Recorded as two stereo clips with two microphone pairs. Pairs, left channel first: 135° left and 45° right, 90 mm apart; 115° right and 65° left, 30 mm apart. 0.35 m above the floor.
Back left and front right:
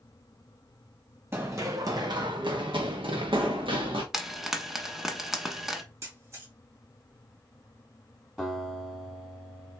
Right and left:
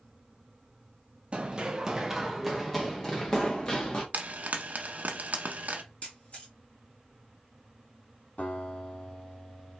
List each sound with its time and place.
1.3 s running footsteps: 20° left, 1.1 m; by 4.0 s 55° right, 2.0 m
4.1 s frying: 45° left, 1.0 m
6.0 s a camera shutter: 90° right, 3 m
8.4 s a guitar: 135° right, 2.5 m